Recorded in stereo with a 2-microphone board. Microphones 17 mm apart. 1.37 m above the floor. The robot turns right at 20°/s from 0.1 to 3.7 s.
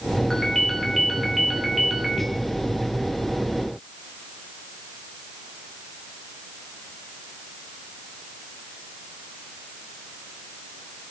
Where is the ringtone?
165° left, 2.5 m; by 2.3 s 155° right, 2.5 m.